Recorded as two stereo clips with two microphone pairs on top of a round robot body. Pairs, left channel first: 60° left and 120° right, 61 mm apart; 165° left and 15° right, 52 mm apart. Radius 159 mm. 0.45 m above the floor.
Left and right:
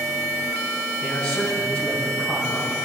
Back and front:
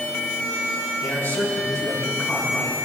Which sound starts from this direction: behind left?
A man speaking, at 1.0 s.